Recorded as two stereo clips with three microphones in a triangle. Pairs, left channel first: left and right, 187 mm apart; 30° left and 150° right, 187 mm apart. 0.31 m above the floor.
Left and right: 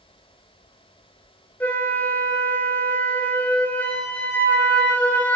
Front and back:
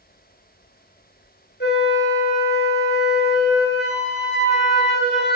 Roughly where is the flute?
Ahead.